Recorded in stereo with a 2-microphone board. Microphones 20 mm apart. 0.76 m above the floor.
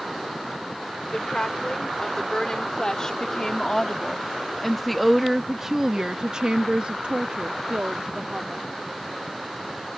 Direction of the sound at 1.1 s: 40° left (ahead or behind).